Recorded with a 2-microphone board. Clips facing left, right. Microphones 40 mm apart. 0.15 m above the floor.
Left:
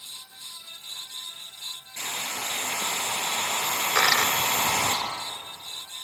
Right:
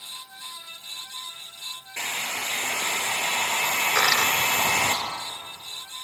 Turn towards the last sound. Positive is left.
turn(degrees=15)  # may be behind; listen again after turning